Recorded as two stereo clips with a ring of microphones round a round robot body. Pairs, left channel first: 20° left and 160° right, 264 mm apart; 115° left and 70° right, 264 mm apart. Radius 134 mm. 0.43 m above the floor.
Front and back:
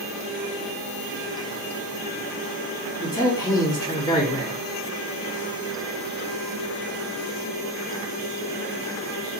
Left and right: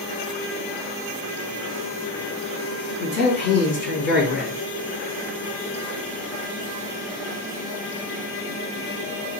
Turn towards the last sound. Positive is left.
turn(degrees=95)